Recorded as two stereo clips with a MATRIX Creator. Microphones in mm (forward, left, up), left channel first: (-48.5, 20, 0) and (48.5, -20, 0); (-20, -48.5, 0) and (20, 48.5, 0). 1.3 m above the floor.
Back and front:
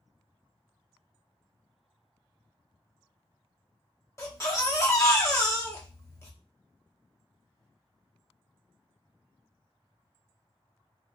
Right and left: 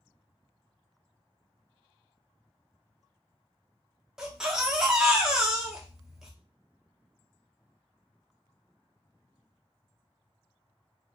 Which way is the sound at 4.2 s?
145° left.